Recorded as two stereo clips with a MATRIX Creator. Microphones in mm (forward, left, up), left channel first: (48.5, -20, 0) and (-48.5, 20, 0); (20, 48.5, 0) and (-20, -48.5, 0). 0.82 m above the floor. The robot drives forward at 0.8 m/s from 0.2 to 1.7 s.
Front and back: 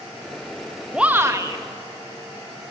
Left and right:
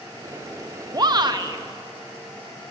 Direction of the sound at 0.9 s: 125° right.